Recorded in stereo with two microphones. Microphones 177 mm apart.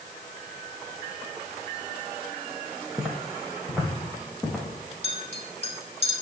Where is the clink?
35° left (ahead or behind), 1.7 m.